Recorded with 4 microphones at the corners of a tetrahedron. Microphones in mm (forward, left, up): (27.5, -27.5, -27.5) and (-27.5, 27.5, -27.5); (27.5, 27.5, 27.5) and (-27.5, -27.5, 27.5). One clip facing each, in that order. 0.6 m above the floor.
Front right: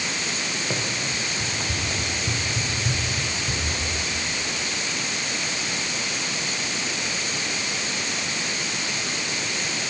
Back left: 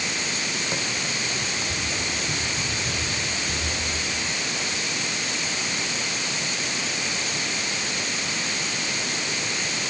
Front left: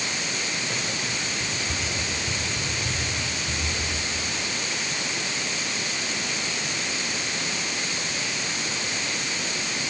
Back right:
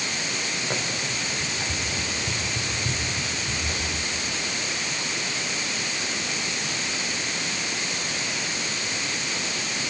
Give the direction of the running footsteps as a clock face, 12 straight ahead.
2 o'clock.